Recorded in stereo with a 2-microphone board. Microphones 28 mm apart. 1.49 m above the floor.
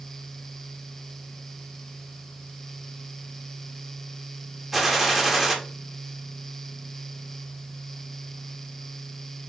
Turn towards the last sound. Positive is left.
turn(degrees=0)  # may be behind; listen again after turning